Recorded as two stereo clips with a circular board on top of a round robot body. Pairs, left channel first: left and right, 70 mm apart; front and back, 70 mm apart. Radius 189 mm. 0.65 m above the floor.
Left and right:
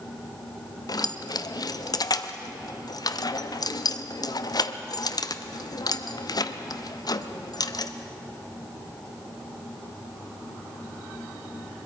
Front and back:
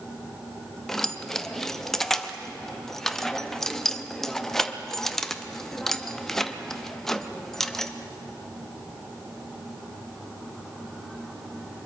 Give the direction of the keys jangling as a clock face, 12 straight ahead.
9 o'clock.